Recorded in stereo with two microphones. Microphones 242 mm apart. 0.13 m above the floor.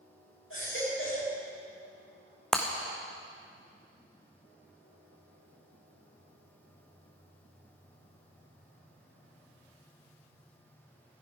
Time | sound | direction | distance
0.5 | a baby crying | 55° left (ahead or behind) | 6.5 m
2.5 | breaking glass | centre (ahead or behind) | 1.9 m